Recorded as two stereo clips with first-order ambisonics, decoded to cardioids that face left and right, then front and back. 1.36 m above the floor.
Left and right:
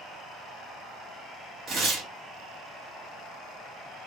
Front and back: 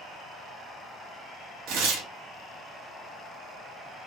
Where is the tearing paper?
150° right, 1.0 m.